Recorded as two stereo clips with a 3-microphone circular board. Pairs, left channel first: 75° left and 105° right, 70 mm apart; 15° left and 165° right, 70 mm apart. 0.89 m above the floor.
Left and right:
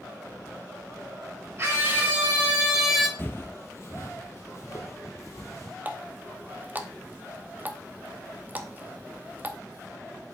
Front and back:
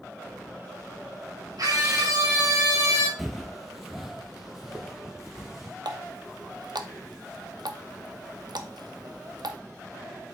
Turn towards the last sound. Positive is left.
turn(degrees=-165)